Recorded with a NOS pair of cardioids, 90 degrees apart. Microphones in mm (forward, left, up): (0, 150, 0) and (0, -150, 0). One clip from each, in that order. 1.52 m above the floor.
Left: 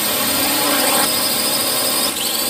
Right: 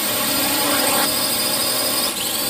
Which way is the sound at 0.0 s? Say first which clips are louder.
Left 2 dB; 20° left.